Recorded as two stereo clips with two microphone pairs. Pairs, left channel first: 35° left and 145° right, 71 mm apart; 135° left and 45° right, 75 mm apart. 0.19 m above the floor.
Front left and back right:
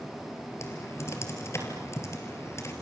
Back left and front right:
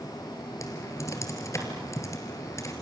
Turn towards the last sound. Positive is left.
turn(degrees=85)